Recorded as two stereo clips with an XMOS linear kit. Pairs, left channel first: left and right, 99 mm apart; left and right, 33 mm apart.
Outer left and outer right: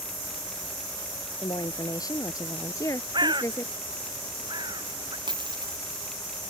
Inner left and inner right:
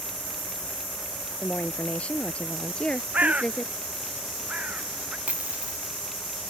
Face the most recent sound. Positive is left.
turn(degrees=-50)  # may be behind; listen again after turning